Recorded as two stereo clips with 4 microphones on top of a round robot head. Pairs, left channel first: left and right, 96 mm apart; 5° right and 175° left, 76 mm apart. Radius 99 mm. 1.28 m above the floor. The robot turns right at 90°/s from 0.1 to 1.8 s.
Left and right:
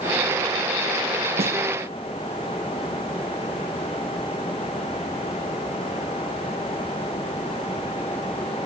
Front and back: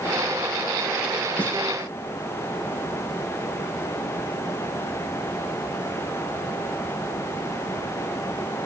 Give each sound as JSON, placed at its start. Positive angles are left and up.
{"t": 1.4, "sound": "a snare drum", "azimuth_deg": -80, "distance_m": 3.5}